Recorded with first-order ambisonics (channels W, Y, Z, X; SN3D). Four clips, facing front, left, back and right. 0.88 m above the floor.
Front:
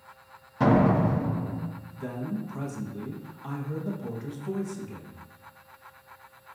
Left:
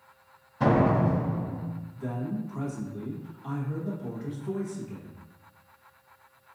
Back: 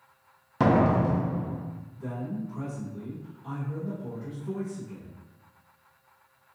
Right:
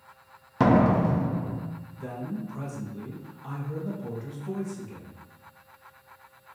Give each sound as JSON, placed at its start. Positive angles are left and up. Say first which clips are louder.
{"t": 0.6, "sound": "a door slam", "louder": "right 2 dB, front 1 dB", "azimuth_deg": -120, "distance_m": 0.7}
{"t": 2.0, "sound": "a man speaking", "louder": "left 2 dB, front 1 dB", "azimuth_deg": -10, "distance_m": 0.9}